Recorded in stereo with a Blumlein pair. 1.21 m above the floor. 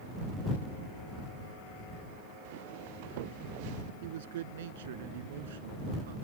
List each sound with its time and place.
2.5 s footsteps: 50° right; by 3.9 s 45° right
4.0 s a man speaking: 55° right